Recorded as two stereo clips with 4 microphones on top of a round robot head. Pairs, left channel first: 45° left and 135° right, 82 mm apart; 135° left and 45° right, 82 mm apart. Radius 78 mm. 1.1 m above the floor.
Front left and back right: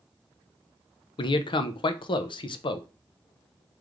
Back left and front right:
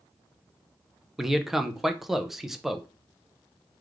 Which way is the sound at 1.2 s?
45° left.